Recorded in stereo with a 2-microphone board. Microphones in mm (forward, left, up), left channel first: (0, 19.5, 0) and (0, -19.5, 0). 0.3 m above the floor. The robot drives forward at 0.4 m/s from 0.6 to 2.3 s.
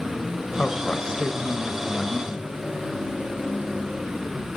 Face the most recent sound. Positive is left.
turn(degrees=20)  # may be behind; listen again after turning